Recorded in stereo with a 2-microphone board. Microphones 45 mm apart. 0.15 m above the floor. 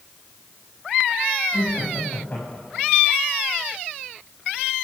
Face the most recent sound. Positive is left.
turn(degrees=45)  # may be behind; listen again after turning